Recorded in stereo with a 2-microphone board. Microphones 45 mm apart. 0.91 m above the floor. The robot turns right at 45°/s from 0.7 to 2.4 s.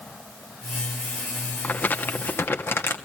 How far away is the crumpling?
About 1.5 m.